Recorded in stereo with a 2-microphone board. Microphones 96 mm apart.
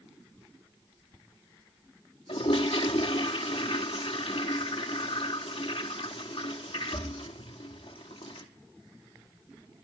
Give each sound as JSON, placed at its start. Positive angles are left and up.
{"t": 2.3, "sound": "a toilet flushing", "side_deg": 90, "distance_m": 1.5}